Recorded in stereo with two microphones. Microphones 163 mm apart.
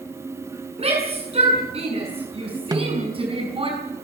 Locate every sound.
0.8 s a shout: 40° right (ahead or behind), 7 m; by 3.7 s 35° right (ahead or behind), 5.5 m
2.7 s a snare drum: 20° right (ahead or behind), 0.9 m